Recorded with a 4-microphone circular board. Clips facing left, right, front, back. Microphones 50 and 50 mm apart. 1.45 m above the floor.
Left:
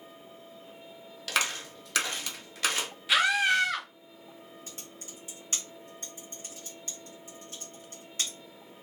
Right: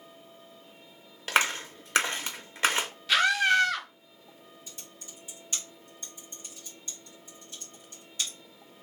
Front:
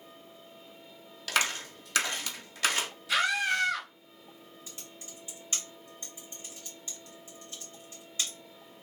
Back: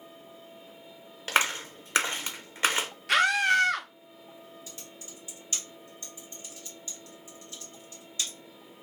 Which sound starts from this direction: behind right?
A clap, at 1.3 s.